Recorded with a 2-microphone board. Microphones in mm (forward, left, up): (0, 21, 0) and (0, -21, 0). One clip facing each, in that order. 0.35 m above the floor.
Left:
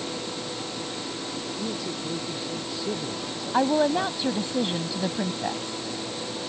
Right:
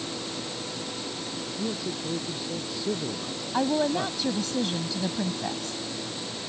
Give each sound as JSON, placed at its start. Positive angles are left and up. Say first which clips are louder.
{"t": 1.6, "sound": "a man speaking", "louder": "right 2 dB", "side_deg": -5}
{"t": 3.5, "sound": "a woman speaking", "louder": "left 3 dB", "side_deg": 20}